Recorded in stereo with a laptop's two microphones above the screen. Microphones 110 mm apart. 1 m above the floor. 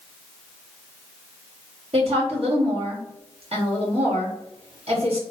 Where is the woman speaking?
65° right (ahead or behind), 1.8 m.